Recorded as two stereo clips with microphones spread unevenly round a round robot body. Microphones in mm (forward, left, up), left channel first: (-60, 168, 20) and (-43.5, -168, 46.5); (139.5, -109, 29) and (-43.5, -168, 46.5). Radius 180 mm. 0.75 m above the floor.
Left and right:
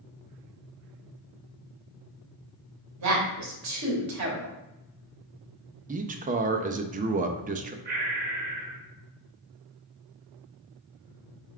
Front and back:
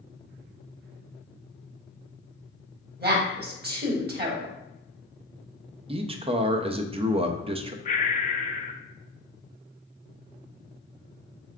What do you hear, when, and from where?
3.0 s a woman speaking: 125° right, 1.8 m
5.9 s a man speaking: 135° right, 0.5 m
7.8 s breathing: 25° right, 0.6 m